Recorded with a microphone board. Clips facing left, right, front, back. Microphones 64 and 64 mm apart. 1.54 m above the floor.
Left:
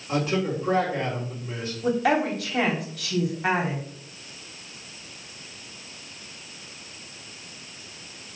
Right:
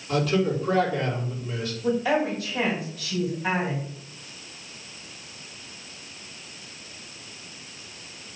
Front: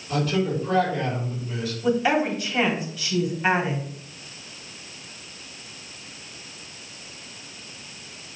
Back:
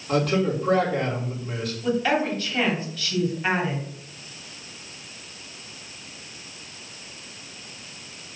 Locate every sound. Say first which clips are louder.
0.1 s a man speaking: right 2 dB, back 2 dB; 150° left, 4.5 m
1.8 s a woman speaking: left 1 dB, front 2 dB; 75° left, 3.5 m